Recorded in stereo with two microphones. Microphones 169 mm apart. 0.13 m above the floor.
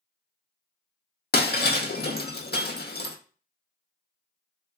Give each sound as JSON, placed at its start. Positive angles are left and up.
{"t": 1.3, "sound": "breaking glass", "side_deg": 80, "distance_m": 0.5}